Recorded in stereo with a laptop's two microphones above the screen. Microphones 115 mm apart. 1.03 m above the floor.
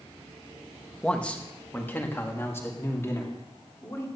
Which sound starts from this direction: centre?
A man speaking, at 1.0 s.